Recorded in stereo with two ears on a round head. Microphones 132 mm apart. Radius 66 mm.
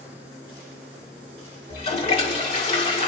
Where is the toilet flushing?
45° left (ahead or behind), 1.7 m.